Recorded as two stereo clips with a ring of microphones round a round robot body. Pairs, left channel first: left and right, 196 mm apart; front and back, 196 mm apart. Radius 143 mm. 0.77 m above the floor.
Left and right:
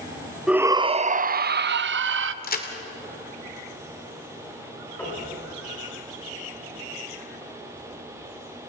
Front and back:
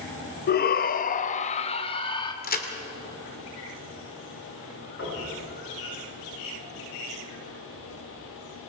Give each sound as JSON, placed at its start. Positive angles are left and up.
{"t": 0.5, "sound": "a shout", "azimuth_deg": -5, "distance_m": 0.6}
{"t": 2.4, "sound": "a crack", "azimuth_deg": 45, "distance_m": 2.5}
{"t": 5.0, "sound": "knocking", "azimuth_deg": 10, "distance_m": 10.0}